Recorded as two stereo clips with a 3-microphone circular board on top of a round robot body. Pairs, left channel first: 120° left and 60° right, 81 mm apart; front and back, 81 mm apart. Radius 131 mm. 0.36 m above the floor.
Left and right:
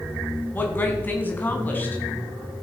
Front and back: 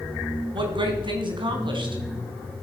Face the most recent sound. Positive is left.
turn(degrees=-175)